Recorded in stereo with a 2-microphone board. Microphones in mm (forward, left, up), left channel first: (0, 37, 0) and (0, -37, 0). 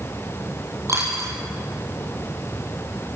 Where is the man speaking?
No man speaking in this recording.